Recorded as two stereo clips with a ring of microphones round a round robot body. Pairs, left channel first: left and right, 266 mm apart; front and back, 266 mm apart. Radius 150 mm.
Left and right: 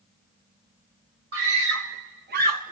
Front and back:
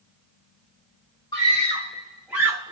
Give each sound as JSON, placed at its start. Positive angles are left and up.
{"t": 1.3, "sound": "a scream", "azimuth_deg": -75, "distance_m": 1.5}